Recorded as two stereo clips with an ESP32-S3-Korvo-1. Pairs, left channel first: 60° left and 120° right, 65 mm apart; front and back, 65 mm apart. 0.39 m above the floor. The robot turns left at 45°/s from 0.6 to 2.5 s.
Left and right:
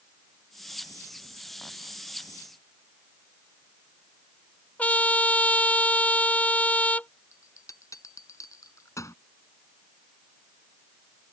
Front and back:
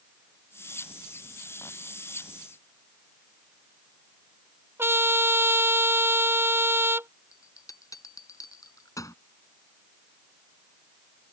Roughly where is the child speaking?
I don't hear a child speaking.